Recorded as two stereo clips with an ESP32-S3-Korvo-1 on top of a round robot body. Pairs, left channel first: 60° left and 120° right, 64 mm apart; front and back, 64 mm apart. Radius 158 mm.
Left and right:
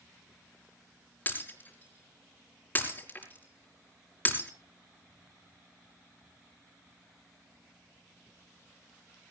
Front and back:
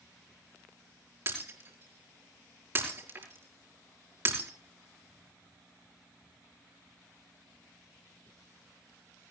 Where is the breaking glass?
125° left, 5 m.